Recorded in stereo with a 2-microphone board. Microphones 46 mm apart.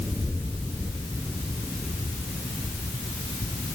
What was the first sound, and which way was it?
Only background noise.